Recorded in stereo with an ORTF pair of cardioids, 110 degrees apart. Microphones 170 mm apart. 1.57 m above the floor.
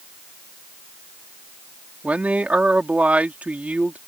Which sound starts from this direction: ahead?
A man speaking, at 2.0 s.